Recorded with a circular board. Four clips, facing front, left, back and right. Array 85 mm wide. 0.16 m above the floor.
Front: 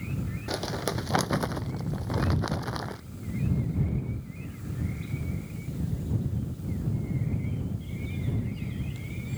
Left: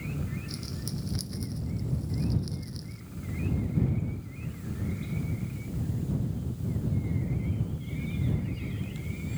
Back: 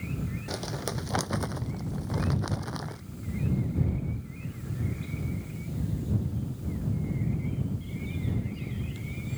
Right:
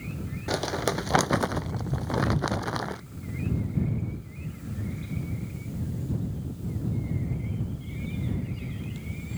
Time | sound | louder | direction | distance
0.5 | crumpling | right 11 dB, front 6 dB | 80° right | ?